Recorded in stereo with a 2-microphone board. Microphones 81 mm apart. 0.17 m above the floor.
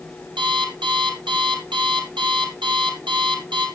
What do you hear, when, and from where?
0.4 s an alarm clock: 70° right (ahead or behind), 2.5 m